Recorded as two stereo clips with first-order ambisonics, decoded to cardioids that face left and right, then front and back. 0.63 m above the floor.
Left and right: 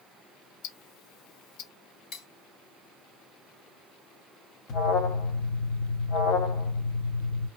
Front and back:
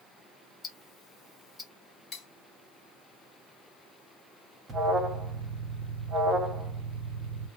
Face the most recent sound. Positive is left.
turn(degrees=120)